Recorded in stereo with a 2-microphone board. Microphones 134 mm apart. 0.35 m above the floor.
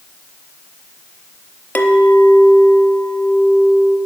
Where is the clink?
15° left (ahead or behind), 0.6 m.